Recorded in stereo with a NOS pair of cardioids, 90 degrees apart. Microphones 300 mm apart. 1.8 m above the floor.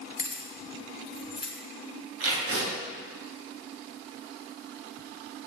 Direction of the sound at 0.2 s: 30° left.